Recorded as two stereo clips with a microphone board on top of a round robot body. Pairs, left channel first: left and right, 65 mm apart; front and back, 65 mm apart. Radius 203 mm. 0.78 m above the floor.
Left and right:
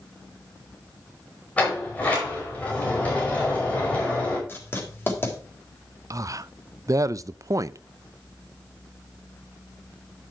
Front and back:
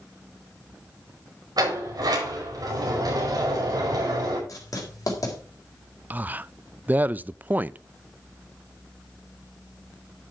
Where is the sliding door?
160° left, 5 m.